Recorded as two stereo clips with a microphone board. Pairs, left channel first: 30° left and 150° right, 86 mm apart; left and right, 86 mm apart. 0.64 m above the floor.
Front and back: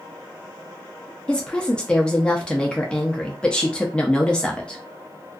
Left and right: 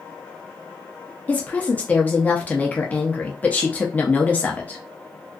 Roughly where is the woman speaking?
Left.